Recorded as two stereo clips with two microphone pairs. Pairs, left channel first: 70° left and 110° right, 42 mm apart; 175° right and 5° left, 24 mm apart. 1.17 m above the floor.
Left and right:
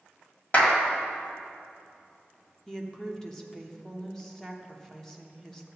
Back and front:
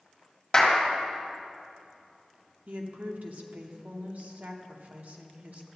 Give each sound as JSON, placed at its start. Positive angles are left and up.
{"t": 0.5, "sound": "a clap", "azimuth_deg": 115, "distance_m": 1.7}
{"t": 2.7, "sound": "a woman speaking", "azimuth_deg": -5, "distance_m": 0.9}